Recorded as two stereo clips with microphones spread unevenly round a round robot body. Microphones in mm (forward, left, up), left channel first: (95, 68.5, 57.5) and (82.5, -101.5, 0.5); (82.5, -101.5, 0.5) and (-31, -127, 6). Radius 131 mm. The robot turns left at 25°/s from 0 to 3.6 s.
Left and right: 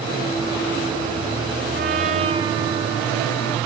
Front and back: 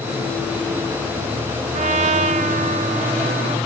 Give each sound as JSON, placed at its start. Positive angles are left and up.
{"t": 1.7, "sound": "a trumpet", "azimuth_deg": -155, "distance_m": 0.8}